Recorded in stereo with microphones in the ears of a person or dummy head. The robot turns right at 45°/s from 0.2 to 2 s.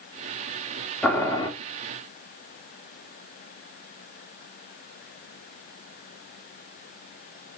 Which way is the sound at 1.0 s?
15° left (ahead or behind).